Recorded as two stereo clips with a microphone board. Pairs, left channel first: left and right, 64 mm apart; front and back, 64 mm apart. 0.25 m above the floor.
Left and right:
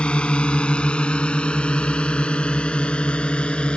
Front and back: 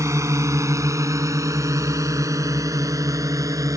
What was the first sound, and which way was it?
A drone, 160° left.